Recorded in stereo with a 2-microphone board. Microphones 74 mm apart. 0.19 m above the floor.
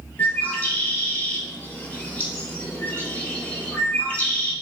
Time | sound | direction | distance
0.2 | a bird | 20° left (ahead or behind) | 1.0 m